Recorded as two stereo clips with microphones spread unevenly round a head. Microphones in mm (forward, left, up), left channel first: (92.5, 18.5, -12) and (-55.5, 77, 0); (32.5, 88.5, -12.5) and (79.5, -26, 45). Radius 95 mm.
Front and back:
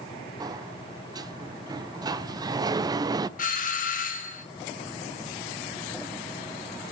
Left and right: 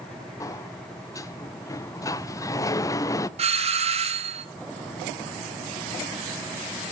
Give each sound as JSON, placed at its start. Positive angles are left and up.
{"t": 0.4, "sound": "a sliding door", "azimuth_deg": 95, "distance_m": 0.6}
{"t": 3.4, "sound": "a doorbell", "azimuth_deg": -20, "distance_m": 1.5}